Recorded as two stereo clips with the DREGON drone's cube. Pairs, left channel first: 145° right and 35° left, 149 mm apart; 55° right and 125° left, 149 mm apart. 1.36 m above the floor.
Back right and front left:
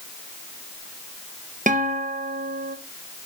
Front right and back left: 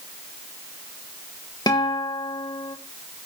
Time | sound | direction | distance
1.7 | a guitar | 5° left | 1.3 m